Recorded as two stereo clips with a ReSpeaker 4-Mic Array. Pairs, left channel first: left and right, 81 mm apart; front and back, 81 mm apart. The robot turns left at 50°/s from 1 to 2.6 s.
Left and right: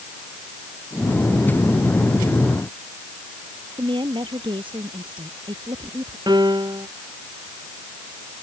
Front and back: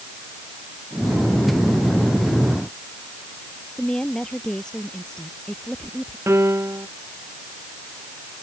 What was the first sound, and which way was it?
A woman speaking, 80° right.